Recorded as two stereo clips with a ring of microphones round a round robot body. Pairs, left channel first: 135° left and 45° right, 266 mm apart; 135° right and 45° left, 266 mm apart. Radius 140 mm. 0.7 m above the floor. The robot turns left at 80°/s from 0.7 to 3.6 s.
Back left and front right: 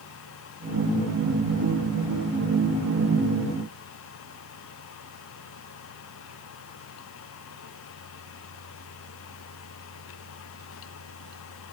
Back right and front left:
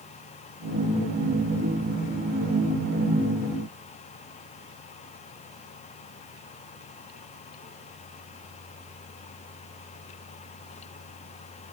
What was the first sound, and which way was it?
Only background noise.